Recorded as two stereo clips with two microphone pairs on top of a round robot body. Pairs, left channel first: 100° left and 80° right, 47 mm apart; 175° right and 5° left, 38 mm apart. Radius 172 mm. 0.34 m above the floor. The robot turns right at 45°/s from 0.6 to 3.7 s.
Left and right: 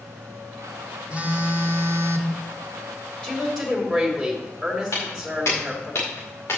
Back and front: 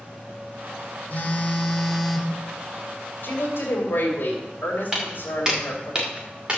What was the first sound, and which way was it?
A phone buzzing, 135° right.